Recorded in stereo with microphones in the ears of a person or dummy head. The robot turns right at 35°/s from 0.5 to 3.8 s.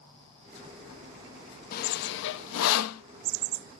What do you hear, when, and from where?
1.7 s sawing: 50° left (ahead or behind), 1.0 m; by 3.0 s 85° left, 1.0 m